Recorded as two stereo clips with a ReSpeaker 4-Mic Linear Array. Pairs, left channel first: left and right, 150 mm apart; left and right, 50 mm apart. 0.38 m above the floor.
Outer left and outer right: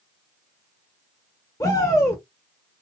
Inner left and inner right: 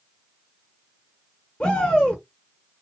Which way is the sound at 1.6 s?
20° left (ahead or behind).